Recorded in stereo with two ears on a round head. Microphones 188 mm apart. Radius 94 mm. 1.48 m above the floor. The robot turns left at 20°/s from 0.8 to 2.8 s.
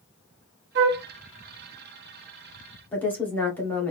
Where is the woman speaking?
10° left (ahead or behind), 1.4 m.